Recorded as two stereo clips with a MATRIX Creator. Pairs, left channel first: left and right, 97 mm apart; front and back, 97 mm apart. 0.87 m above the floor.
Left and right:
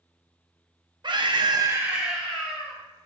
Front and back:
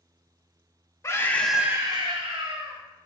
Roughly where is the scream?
Ahead right.